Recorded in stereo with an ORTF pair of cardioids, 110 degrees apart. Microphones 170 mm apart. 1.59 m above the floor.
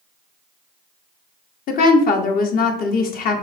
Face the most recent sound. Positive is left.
turn(degrees=60)